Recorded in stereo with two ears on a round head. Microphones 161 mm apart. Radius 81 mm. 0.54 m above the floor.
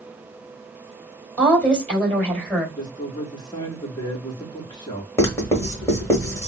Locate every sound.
1.4 s a woman speaking: 10° left (ahead or behind), 2.5 m
2.8 s a man speaking: 25° left (ahead or behind), 1.1 m
5.2 s writing: 15° left (ahead or behind), 1.2 m